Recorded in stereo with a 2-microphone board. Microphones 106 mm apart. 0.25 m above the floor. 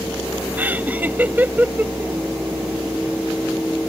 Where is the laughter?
15° right (ahead or behind).